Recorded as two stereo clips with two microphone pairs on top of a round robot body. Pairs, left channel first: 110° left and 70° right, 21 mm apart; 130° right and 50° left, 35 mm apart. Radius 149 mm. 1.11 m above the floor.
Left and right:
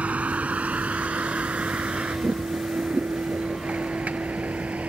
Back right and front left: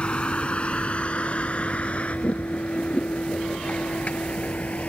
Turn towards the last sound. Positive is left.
turn(degrees=-80)